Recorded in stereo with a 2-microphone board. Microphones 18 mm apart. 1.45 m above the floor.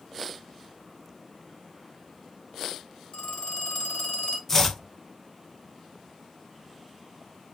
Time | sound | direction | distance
3.1 | a phone ringing | 70° left (ahead or behind) | 1.7 m
4.5 | chopping | 15° left (ahead or behind) | 0.9 m